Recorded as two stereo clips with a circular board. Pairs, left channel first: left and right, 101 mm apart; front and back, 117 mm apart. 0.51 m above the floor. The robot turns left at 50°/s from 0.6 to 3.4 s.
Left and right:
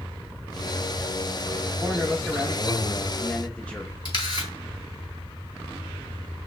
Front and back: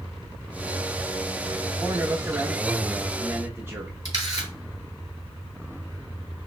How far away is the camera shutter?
About 3 m.